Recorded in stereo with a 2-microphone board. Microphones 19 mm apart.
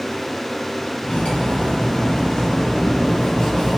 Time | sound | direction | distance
1.0 | cutlery clinking | 65° left (ahead or behind) | 1.0 m